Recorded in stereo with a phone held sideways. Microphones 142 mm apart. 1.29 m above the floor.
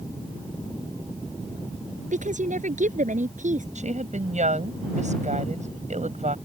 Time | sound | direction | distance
2.1 | a woman speaking | 70° right (ahead or behind) | ?
3.8 | a woman speaking | 65° right (ahead or behind) | ?